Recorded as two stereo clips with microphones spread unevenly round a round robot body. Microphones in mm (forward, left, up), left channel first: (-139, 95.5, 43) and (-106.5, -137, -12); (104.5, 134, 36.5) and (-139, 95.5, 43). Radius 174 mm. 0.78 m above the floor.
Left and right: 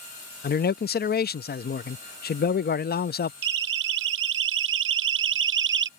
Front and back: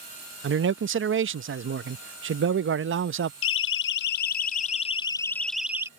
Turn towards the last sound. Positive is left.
turn(degrees=-90)